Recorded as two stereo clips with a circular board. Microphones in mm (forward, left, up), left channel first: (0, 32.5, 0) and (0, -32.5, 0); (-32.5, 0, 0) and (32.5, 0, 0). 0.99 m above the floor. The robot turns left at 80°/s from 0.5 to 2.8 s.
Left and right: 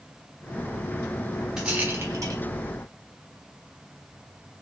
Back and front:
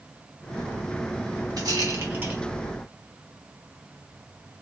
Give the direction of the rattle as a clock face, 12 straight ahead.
12 o'clock.